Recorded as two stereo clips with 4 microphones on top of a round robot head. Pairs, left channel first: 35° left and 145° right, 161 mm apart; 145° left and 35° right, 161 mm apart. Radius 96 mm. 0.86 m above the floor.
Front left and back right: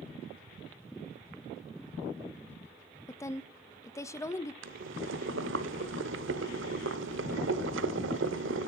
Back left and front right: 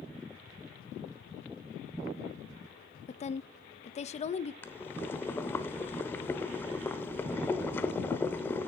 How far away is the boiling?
About 0.8 m.